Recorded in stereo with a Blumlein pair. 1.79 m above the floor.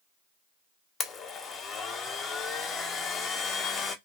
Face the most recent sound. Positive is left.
turn(degrees=25)